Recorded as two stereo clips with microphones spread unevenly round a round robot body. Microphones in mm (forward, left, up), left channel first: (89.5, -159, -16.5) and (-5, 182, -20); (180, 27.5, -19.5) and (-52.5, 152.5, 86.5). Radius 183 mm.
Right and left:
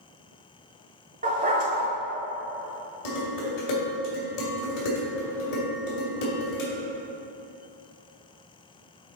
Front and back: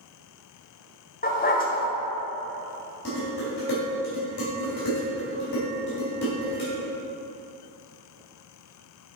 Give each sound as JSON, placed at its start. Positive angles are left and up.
{"t": 1.2, "sound": "a dog barking", "azimuth_deg": 35, "distance_m": 1.3}
{"t": 3.0, "sound": "dishes clattering", "azimuth_deg": -85, "distance_m": 2.5}